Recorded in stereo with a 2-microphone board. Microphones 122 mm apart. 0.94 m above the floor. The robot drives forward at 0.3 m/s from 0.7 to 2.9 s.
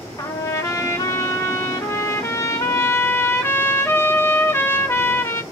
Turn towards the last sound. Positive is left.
turn(degrees=20)  # may be behind; listen again after turning